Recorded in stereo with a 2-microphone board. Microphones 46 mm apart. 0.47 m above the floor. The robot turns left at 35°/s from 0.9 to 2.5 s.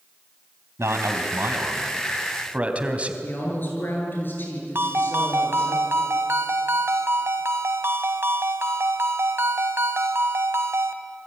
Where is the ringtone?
55° right (ahead or behind), 1.8 m.